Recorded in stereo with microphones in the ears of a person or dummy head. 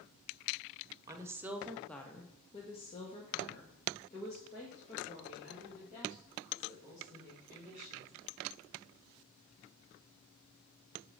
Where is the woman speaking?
20° right (ahead or behind), 0.8 m; by 8.1 s 35° left (ahead or behind), 4 m.